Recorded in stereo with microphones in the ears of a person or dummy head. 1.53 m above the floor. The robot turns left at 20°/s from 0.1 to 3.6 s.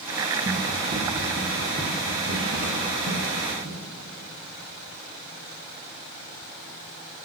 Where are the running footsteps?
30° right (ahead or behind), 1.8 m; by 3.8 s 60° right (ahead or behind), 3 m.